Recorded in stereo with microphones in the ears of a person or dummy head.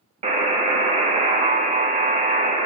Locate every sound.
0.2 s a buzzer: 30° right (ahead or behind), 0.5 m